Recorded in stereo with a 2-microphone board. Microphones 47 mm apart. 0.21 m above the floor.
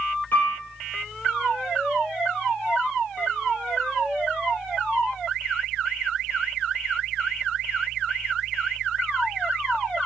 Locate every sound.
0.3 s a piano: 45° left (ahead or behind), 0.9 m